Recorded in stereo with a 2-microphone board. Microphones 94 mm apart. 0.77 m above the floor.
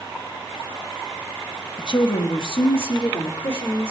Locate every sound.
1.8 s a woman speaking: 55° left (ahead or behind), 1.2 m; by 3.9 s 60° left (ahead or behind), 2.5 m